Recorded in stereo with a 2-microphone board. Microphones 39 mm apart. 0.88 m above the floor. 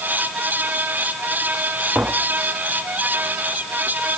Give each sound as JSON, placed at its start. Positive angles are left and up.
{"t": 1.9, "sound": "tapping", "side_deg": -50}